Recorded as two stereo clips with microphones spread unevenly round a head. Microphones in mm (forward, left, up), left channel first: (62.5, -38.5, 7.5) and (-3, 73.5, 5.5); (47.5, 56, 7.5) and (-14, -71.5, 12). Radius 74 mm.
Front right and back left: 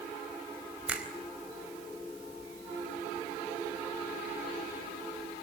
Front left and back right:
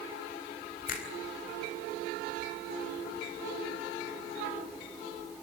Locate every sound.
0.9 s a finger snap: 40° left, 4 m